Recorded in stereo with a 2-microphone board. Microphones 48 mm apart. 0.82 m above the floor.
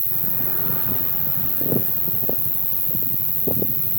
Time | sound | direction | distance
0.0 | an insect | 30° left (ahead or behind) | ?